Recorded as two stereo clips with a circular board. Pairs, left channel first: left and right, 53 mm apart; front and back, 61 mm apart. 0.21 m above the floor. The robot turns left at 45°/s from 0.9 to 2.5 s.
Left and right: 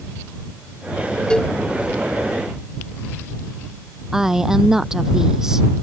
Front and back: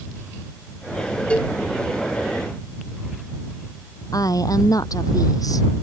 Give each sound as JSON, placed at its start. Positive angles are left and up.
{"t": 1.3, "sound": "a cowbell", "azimuth_deg": 40}
{"t": 4.1, "sound": "a woman speaking", "azimuth_deg": -10}